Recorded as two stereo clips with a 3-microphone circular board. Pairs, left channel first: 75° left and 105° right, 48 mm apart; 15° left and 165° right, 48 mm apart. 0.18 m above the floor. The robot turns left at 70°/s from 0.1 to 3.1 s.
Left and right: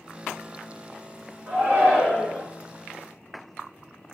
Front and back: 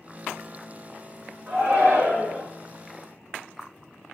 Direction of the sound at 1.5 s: 130° right.